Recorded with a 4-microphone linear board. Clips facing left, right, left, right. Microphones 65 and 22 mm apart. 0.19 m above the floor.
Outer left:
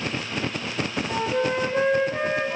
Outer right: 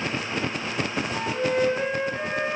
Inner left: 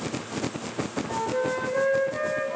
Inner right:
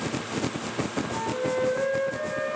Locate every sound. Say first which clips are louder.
1.1 s a flute: outer left 3 dB, inner left 4 dB; 75° left (ahead or behind), 1.3 m